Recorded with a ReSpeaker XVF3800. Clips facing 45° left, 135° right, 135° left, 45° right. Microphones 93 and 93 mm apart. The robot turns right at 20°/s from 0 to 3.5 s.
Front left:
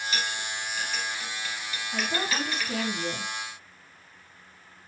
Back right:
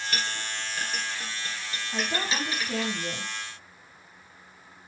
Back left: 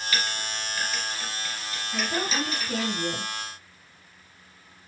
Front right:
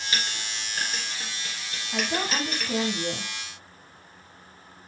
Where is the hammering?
I don't hear hammering.